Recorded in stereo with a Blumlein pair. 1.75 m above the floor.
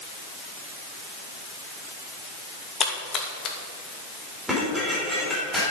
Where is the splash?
25° left, 2 m.